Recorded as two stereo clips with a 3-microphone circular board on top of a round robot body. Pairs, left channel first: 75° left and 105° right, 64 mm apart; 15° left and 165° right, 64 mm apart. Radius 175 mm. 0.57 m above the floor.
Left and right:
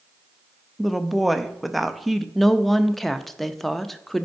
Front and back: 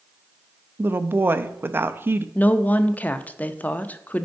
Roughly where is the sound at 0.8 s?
Behind.